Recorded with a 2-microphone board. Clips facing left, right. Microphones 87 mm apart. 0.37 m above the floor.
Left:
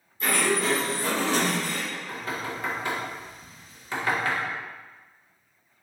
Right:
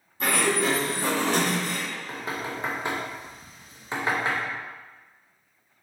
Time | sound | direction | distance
0.2 | a sliding door | 75° right (ahead or behind) | 1.1 m
1.9 | knocking | 20° right (ahead or behind) | 0.6 m